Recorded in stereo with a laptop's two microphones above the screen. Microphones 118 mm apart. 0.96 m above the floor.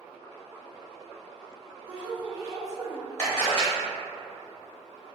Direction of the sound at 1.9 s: 50° right (ahead or behind).